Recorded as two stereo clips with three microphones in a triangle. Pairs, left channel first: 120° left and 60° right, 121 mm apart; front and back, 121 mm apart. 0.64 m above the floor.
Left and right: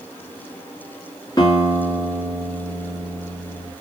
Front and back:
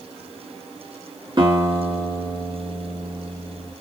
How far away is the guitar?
About 1.5 m.